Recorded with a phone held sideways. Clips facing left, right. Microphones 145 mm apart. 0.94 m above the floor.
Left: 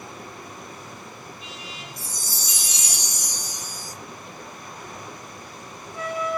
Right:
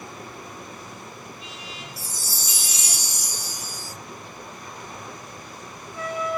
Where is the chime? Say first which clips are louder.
Even; 5° right (ahead or behind), 0.7 m.